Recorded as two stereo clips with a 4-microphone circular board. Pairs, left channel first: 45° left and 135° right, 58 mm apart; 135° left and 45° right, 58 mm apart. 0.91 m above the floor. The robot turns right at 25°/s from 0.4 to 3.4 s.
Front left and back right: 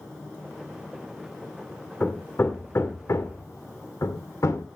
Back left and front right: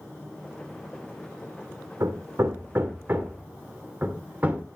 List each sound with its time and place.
2.0 s hammering: 15° right, 1.8 m; by 4.7 s 20° left, 1.8 m